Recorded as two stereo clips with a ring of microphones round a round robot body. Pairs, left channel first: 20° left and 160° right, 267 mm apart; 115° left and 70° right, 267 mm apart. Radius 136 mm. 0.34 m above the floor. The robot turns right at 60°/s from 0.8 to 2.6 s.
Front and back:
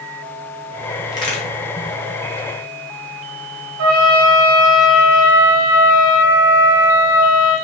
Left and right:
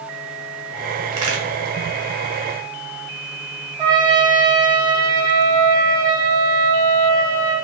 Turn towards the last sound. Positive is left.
turn(degrees=-140)